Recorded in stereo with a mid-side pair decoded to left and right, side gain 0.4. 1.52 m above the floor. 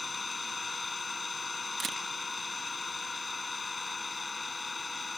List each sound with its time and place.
0.0 s an engine running: 25° left
1.8 s a camera shutter: 50° right